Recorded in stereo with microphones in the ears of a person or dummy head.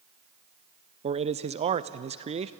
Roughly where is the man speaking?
Right.